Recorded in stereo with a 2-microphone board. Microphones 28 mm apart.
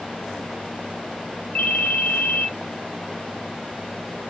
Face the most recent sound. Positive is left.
turn(degrees=50)  # may be behind; listen again after turning